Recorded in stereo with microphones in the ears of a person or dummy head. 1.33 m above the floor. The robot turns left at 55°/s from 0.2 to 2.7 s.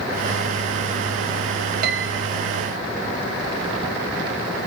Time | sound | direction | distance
1.8 | a piano | 60° right (ahead or behind) | 0.6 m